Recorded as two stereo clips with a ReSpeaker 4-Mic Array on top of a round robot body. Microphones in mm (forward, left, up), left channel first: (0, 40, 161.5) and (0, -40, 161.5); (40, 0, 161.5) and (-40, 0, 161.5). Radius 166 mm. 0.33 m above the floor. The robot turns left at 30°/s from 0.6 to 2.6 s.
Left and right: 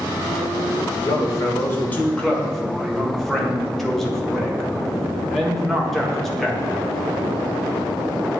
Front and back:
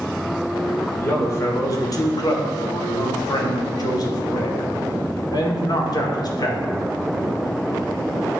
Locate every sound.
1.0 s a man speaking: 50° left, 1.7 m; by 6.8 s 5° left, 1.7 m